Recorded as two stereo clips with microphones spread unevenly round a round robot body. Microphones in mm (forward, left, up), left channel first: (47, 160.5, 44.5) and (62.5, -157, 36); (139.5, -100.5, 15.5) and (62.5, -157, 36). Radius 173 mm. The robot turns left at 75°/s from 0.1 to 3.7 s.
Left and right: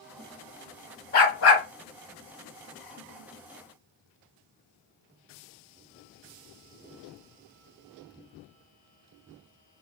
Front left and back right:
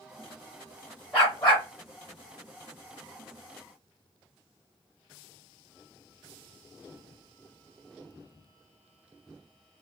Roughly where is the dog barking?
Behind left.